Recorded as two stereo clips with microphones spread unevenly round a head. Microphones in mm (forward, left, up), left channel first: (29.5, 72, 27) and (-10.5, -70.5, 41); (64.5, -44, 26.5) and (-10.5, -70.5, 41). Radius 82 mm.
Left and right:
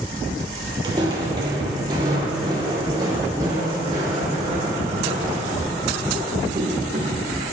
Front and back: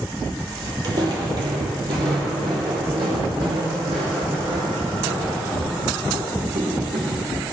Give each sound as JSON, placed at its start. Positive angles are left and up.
{"t": 0.8, "sound": "footsteps", "azimuth_deg": -160, "distance_m": 1.6}